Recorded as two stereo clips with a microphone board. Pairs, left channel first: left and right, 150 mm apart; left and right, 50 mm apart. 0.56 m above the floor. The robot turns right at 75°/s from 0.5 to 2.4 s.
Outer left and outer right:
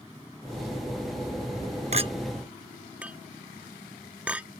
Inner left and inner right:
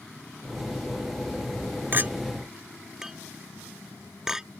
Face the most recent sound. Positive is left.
turn(degrees=-10)  # may be behind; listen again after turning